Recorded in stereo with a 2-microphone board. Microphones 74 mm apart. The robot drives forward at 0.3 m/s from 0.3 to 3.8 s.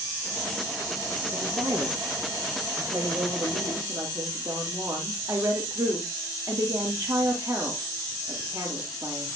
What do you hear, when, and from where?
1.3 s a woman speaking: 65° right (ahead or behind), 3.5 m; by 9.3 s 60° right (ahead or behind), 3.5 m